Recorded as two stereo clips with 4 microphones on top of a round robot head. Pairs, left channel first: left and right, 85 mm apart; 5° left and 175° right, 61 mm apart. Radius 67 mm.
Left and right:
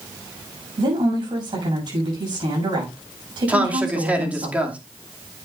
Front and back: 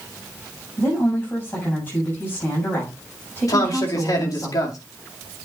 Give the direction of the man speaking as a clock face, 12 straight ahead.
1 o'clock.